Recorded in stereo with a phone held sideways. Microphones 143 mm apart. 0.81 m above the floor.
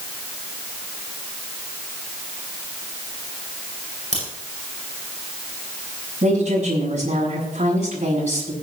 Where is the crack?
50° right (ahead or behind), 7.5 m.